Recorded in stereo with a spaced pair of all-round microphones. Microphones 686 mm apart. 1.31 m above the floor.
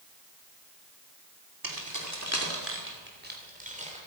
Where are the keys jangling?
30° right (ahead or behind), 2 m; by 4.0 s 10° right (ahead or behind), 3 m.